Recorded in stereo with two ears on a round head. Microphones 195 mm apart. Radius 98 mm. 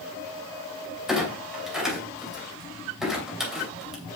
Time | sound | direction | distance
1.1 | a clunk | 5° right (ahead or behind) | 2.5 m